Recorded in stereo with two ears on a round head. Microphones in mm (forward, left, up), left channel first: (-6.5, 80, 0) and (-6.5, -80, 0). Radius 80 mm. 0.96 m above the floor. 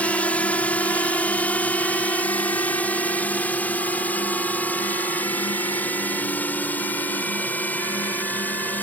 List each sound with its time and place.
0.0 s a drone: 10° left (ahead or behind)